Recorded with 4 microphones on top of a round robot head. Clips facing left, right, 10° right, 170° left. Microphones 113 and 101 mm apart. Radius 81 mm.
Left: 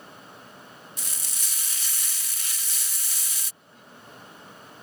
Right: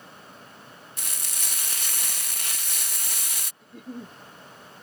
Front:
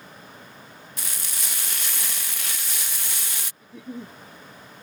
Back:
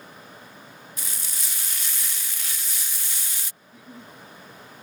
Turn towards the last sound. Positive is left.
turn(degrees=-45)